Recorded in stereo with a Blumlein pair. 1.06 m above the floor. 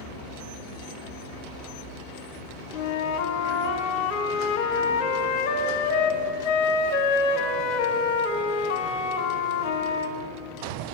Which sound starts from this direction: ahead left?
A flute, at 2.7 s.